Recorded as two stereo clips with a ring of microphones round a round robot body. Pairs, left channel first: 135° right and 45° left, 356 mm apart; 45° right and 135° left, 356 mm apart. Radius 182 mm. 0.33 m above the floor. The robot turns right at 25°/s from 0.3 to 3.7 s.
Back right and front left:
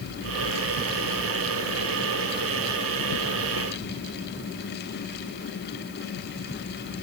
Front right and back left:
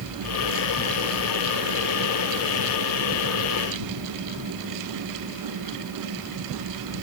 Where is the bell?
I don't hear a bell.